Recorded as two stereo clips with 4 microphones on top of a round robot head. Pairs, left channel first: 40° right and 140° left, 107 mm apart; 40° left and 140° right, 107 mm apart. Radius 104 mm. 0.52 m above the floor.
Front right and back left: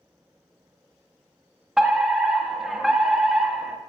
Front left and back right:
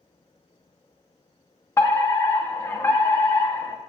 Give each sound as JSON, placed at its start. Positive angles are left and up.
{"t": 1.8, "sound": "a fire alarm", "azimuth_deg": 55, "distance_m": 1.8}